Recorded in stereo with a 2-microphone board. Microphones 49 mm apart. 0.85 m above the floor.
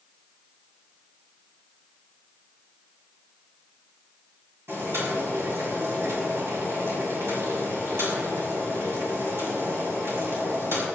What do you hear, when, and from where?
4.7 s boiling: 55° right (ahead or behind), 6 m